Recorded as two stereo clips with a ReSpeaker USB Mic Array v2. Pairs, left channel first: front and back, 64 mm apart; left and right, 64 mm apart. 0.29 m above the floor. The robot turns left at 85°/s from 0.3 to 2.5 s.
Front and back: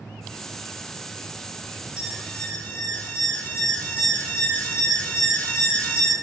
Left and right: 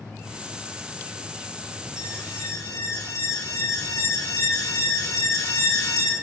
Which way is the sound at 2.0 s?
110° left.